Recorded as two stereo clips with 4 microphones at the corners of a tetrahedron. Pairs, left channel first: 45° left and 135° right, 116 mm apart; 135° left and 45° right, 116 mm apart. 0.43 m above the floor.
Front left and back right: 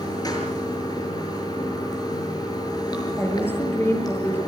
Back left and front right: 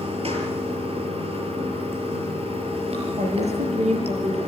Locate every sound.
0.0 s running water: 10° right, 6 m
3.2 s a woman speaking: 25° right, 8.5 m